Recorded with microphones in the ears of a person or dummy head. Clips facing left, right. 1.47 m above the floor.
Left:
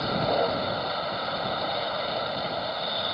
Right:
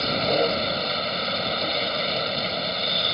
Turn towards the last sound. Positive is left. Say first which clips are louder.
# right 2 dB
turn(degrees=-40)  # may be behind; listen again after turning